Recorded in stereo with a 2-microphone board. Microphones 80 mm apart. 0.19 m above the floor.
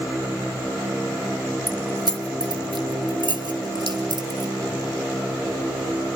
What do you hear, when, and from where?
1.7 s keys jangling: 60° right (ahead or behind), 2.5 m; by 4.5 s 55° right (ahead or behind), 3 m